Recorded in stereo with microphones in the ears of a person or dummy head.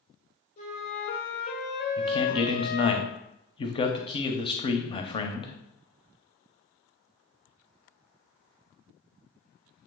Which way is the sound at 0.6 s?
40° left (ahead or behind).